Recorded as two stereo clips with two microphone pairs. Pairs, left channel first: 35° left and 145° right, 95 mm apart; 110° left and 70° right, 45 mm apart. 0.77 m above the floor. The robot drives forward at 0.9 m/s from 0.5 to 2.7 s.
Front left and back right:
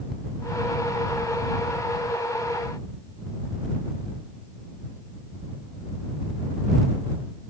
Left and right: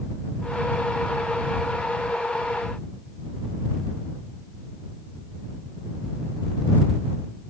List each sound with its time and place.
Only background noise.